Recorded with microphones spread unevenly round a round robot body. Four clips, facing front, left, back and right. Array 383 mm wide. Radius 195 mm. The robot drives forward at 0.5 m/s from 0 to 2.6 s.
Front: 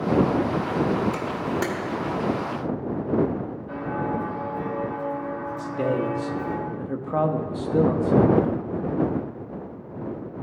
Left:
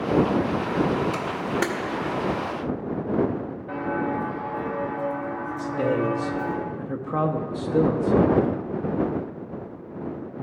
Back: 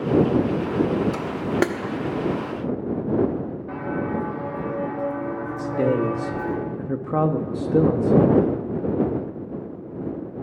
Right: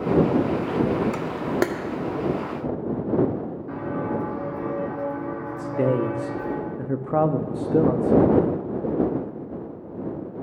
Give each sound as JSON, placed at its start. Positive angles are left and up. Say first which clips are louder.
{"t": 1.1, "sound": "a camera shutter", "louder": "right 2 dB, back 3 dB", "azimuth_deg": -135, "distance_m": 0.6}
{"t": 3.7, "sound": "footsteps", "louder": "left 2 dB, even", "azimuth_deg": -110, "distance_m": 1.8}
{"t": 5.6, "sound": "a man speaking", "louder": "right 2 dB, back 4 dB", "azimuth_deg": -135, "distance_m": 0.6}